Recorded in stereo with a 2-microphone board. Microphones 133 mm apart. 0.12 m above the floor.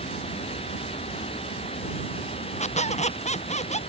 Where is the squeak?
60° left (ahead or behind).